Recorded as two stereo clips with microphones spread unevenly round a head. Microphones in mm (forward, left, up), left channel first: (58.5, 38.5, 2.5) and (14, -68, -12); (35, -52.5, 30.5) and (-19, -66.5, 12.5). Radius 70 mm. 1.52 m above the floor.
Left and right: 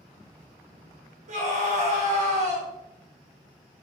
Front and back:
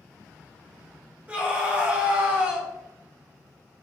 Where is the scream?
95° right, 4.5 m.